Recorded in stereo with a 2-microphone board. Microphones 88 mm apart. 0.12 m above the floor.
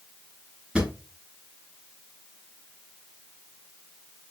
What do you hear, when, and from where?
0.8 s a drawer: 10° right (ahead or behind), 0.8 m